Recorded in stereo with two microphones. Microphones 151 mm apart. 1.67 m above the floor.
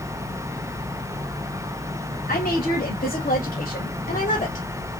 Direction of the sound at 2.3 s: 80° left.